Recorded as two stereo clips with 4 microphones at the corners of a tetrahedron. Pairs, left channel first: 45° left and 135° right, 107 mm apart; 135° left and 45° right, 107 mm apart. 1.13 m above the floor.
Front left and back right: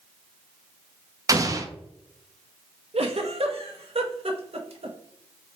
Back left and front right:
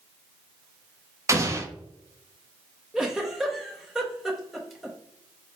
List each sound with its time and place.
1.3 s an explosion: 90° right, 0.5 m
2.9 s a giggle: 130° right, 0.6 m